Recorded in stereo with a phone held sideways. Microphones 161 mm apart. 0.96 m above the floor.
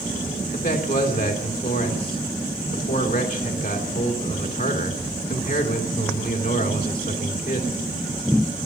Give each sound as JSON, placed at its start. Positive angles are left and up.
{"t": 0.5, "sound": "a man speaking", "side_deg": 70, "distance_m": 3.0}